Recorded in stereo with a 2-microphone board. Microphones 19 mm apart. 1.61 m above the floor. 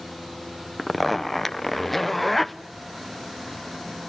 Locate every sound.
0.8 s a zipper: centre (ahead or behind), 0.8 m